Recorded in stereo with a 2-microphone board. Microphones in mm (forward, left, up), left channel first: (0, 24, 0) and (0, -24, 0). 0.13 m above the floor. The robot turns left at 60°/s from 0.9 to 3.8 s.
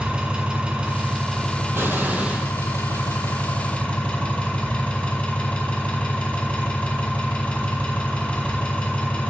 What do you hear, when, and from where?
0.0 s an engine running: 150° right, 1.7 m; by 9.3 s 35° left, 1.7 m
1.7 s an explosion: 120° right, 0.9 m; by 2.5 s 170° right, 0.9 m